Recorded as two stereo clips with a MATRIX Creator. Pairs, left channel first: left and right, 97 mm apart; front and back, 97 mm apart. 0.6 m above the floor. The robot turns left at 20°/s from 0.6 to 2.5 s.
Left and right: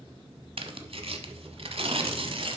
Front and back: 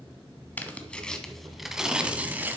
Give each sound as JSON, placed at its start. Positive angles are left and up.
{"t": 0.6, "sound": "tearing paper", "azimuth_deg": -70, "distance_m": 0.9}